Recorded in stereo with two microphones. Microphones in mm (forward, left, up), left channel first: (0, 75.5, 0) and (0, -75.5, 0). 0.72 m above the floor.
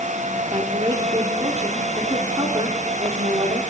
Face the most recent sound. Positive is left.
turn(degrees=-40)  # may be behind; listen again after turning